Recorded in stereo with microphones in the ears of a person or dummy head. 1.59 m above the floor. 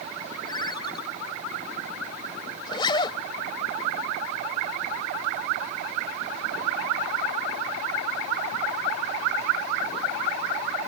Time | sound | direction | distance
0.5 | a ringtone | 25° left (ahead or behind) | ?
2.6 | a zipper | 25° left (ahead or behind) | ?